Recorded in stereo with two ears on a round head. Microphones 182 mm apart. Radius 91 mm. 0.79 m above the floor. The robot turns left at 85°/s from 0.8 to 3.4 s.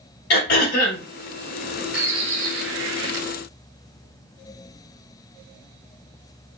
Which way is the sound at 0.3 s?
55° left (ahead or behind).